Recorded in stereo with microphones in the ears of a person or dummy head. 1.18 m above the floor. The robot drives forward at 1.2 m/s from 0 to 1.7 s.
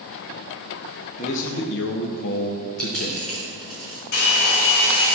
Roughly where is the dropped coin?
Centre.